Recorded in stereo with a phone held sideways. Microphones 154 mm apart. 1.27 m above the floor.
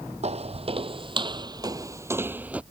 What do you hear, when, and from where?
0.2 s footsteps: 45° right (ahead or behind); by 2.6 s 10° right (ahead or behind)